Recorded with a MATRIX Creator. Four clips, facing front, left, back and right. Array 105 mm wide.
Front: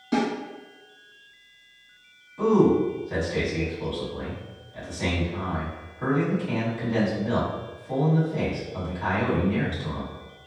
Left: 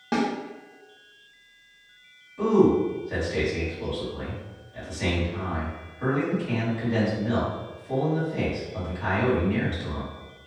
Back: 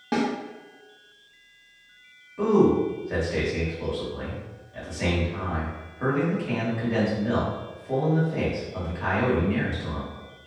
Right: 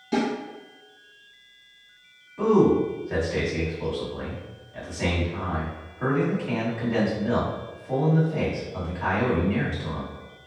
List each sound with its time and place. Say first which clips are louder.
0.1 s a snare drum: even, front 1 dB; 125° left, 0.8 m
2.4 s a man speaking: even, even; 140° right, 1.2 m